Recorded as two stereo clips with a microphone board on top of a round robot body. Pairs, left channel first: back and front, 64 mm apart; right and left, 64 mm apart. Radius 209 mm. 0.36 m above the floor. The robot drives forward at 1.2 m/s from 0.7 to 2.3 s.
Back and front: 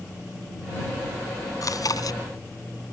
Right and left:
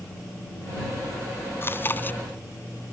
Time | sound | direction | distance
1.6 | chewing | 145° right | ?